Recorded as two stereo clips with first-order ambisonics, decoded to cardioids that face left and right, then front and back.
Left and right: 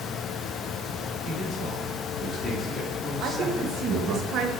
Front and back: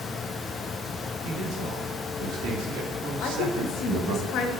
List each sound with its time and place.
1.2 s a man speaking: 150° left, 4 m; by 4.2 s 145° right, 1.6 m
3.2 s a woman speaking: 45° right, 1.6 m